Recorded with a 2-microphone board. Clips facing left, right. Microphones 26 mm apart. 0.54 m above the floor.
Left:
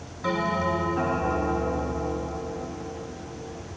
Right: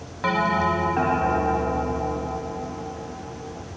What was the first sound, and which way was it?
A bell, 85° right.